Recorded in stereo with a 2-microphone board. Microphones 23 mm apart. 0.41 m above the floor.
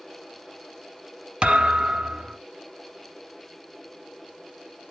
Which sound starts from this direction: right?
A thud, at 1.4 s.